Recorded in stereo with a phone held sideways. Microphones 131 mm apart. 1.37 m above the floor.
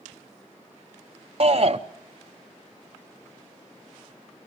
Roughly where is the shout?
Right.